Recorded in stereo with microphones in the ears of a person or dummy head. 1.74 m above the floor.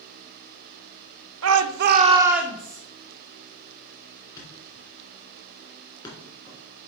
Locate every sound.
1.4 s a shout: 80° right, 1.0 m; by 2.8 s 10° left (ahead or behind), 1.6 m
4.4 s a thud: 20° left (ahead or behind), 3 m